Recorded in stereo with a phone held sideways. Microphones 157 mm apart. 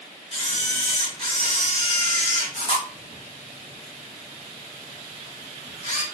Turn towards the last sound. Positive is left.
turn(degrees=45)  # may be behind; listen again after turning